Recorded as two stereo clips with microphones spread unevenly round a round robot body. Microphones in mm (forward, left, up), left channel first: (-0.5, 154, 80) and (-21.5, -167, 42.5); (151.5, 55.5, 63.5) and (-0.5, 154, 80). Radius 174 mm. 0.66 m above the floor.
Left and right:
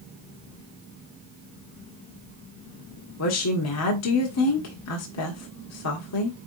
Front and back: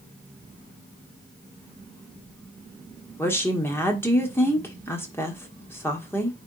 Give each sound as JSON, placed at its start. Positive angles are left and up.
{"t": 3.2, "sound": "a woman speaking", "azimuth_deg": 45, "distance_m": 1.7}